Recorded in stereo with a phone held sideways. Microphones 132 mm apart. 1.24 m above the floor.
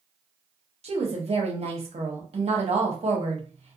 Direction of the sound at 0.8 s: 50° right (ahead or behind).